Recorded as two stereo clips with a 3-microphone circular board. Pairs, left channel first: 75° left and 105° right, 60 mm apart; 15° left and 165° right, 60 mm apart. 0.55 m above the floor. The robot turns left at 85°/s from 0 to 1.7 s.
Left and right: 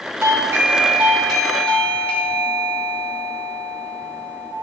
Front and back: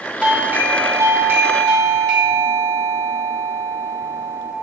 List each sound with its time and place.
0.2 s a doorbell: 105° right, 1.4 m; by 4.5 s 125° left, 1.4 m